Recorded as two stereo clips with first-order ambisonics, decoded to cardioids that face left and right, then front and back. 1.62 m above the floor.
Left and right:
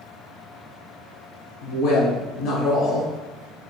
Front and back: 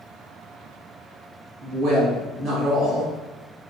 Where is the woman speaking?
130° left, 1.1 m.